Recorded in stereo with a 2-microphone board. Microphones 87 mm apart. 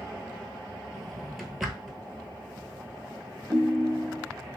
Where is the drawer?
Centre (ahead or behind), 0.7 m.